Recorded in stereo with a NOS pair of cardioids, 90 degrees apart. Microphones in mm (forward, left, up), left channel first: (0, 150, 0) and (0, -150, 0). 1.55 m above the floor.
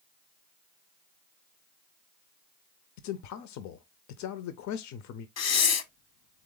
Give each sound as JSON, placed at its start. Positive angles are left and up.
{"t": 3.0, "sound": "a man speaking", "azimuth_deg": 70, "distance_m": 0.6}
{"t": 5.4, "sound": "breathing", "azimuth_deg": 60, "distance_m": 0.8}